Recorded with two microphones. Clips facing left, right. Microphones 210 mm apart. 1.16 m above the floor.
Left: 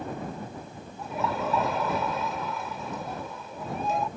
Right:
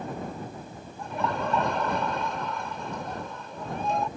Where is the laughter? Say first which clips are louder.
Even; 5° left (ahead or behind).